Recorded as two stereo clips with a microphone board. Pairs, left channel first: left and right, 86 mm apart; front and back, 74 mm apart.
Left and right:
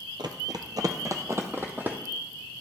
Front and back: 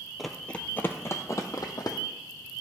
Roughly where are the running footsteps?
Right.